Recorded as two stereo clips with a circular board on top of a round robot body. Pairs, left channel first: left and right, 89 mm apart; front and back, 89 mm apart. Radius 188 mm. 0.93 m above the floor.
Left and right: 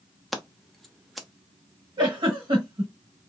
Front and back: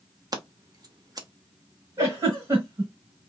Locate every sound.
0.3 s scissors: straight behind, 1.1 m
2.0 s a giggle: 125° right, 1.0 m